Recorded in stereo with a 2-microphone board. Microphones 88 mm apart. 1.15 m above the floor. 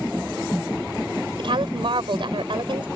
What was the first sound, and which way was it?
A woman speaking, 65° right (ahead or behind).